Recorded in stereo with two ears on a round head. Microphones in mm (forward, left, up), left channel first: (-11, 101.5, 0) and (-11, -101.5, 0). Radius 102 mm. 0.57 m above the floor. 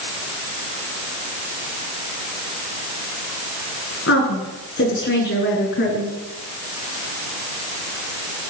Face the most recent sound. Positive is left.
turn(degrees=45)  # may be behind; listen again after turning